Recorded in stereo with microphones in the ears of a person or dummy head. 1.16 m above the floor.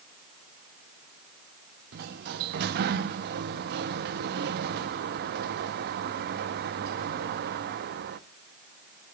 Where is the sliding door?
55° right (ahead or behind), 0.8 m.